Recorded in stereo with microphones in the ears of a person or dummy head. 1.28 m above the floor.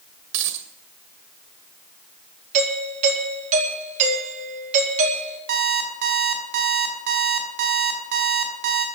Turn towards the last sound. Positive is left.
turn(degrees=-60)  # may be behind; listen again after turning